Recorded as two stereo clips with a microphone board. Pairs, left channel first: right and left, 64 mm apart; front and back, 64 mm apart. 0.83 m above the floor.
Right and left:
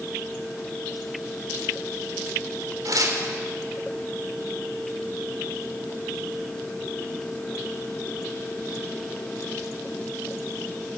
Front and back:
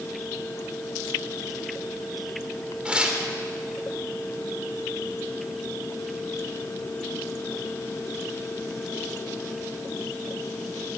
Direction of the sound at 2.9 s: 105° left.